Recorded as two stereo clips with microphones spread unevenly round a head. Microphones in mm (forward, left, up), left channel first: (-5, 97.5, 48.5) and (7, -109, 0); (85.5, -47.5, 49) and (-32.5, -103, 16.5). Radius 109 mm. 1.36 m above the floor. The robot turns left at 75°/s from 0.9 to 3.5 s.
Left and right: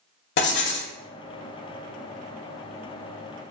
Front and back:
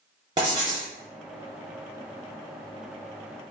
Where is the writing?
135° left, 0.8 m.